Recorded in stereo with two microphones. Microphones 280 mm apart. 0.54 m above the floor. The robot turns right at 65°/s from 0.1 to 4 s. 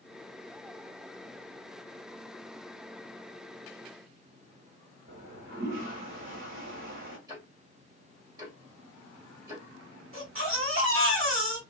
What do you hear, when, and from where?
5.1 s a toilet flushing: 45° right (ahead or behind), 1.4 m
7.3 s ticking: 15° right (ahead or behind), 2 m
10.1 s a baby crying: 50° right (ahead or behind), 1.6 m